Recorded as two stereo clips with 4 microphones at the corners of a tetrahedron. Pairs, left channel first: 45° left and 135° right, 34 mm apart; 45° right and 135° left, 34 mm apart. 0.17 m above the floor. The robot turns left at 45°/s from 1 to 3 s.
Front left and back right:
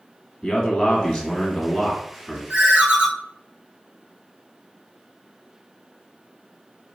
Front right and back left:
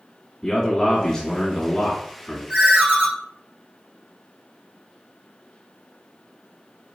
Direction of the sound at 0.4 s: 10° left.